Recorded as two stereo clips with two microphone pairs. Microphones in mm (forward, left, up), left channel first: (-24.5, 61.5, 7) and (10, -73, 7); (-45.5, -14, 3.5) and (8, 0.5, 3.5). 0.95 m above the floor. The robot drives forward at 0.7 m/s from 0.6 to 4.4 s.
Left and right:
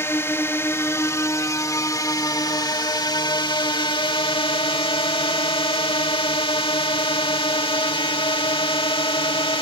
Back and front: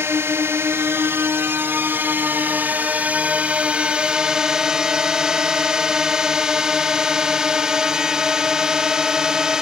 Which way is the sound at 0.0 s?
35° left.